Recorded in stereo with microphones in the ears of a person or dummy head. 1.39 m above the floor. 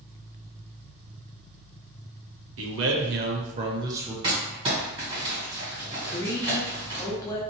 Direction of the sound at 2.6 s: 70° right (ahead or behind).